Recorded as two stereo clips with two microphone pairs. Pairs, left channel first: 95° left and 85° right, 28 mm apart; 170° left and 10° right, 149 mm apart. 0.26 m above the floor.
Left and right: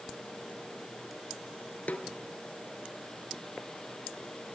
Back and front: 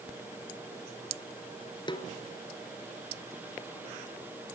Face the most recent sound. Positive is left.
turn(degrees=115)